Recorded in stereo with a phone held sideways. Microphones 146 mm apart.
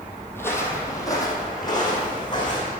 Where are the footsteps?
15° left (ahead or behind), 1.6 m; by 2.7 s 30° left (ahead or behind), 3.5 m.